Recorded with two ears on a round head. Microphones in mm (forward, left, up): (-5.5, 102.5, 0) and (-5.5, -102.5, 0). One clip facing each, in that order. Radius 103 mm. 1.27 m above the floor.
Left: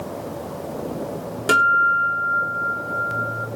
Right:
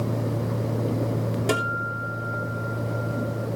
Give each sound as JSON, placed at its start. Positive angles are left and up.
{"t": 1.5, "sound": "a guitar", "side_deg": 15, "distance_m": 3.0}